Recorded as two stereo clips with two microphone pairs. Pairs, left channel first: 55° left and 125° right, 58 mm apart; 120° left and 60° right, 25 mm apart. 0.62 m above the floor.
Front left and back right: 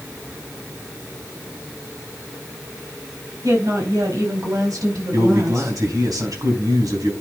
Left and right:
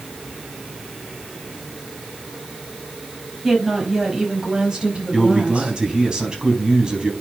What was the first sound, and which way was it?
A woman speaking, 145° right.